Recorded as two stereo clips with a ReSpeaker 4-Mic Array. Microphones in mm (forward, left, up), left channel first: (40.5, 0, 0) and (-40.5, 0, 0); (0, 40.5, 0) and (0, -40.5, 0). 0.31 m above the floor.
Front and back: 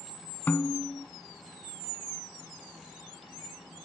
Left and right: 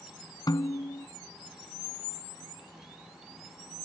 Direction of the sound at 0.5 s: 65° left.